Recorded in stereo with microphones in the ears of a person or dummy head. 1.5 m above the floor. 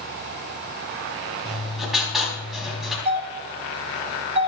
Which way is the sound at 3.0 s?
30° right (ahead or behind).